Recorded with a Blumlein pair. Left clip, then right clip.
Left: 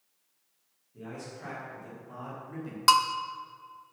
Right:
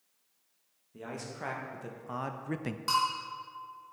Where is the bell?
55° left, 0.8 m.